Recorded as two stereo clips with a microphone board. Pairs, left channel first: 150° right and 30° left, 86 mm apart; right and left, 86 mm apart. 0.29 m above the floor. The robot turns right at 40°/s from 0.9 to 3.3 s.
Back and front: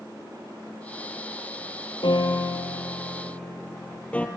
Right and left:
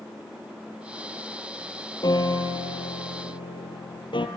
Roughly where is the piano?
Behind right.